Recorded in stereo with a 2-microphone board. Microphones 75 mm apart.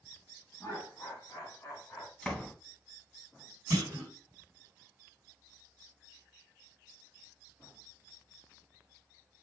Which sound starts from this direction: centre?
A door slam, at 2.2 s.